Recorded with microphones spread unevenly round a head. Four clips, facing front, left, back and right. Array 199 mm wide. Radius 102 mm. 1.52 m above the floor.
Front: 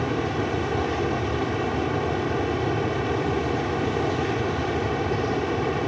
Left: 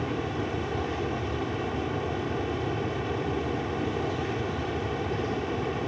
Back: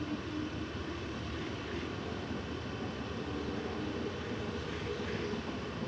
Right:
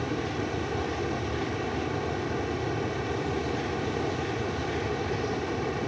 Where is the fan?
Straight ahead.